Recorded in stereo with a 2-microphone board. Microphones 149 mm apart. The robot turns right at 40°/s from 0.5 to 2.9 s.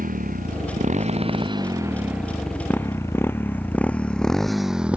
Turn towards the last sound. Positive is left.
turn(degrees=-10)  # may be behind; listen again after turning